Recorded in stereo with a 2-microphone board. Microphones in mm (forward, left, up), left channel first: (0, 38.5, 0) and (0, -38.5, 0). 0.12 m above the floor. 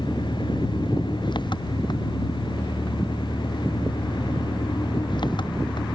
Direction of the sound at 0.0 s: 80° left.